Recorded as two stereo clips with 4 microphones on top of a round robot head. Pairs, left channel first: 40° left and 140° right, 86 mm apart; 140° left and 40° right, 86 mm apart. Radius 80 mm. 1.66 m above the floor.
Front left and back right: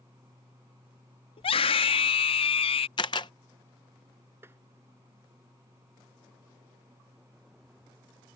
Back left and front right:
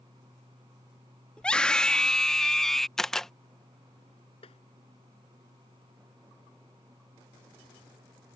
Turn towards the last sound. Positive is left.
turn(degrees=155)